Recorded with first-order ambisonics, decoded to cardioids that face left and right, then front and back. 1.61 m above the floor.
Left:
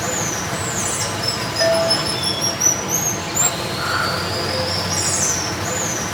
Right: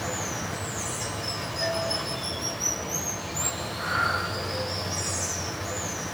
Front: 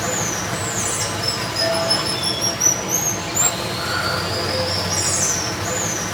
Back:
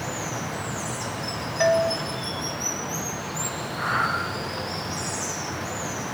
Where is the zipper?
No zipper in this recording.